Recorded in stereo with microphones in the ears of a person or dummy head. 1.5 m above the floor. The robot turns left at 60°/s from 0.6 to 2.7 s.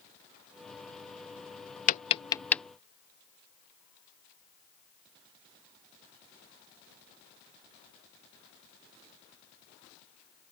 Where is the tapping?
45° left (ahead or behind); by 2.6 s centre (ahead or behind).